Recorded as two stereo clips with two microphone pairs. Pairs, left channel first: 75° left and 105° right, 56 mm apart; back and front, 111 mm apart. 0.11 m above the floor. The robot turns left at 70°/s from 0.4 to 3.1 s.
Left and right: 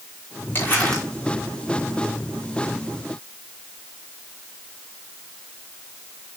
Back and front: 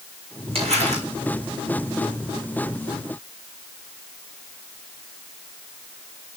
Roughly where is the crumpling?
Ahead left.